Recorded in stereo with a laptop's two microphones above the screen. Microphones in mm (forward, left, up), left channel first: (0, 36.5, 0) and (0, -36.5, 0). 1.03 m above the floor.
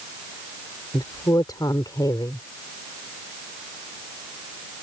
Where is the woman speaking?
60° left (ahead or behind).